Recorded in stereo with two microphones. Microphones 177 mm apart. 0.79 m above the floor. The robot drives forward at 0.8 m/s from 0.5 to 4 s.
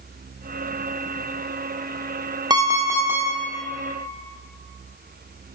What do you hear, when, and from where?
2.5 s an alarm clock: 20° right (ahead or behind), 0.6 m; by 3.3 s 10° right (ahead or behind), 1.2 m